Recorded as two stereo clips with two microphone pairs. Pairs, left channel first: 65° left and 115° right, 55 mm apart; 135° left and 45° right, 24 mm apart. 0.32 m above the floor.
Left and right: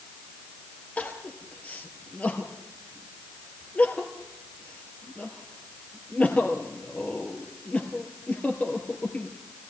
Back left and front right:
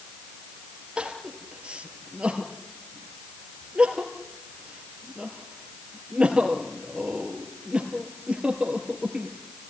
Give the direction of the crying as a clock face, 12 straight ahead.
12 o'clock.